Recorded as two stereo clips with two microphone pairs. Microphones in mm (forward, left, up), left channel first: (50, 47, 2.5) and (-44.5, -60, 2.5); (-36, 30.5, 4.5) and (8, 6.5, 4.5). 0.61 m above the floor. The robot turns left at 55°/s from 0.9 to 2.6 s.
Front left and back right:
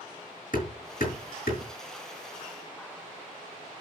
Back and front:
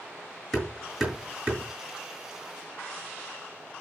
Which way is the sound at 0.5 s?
70° left.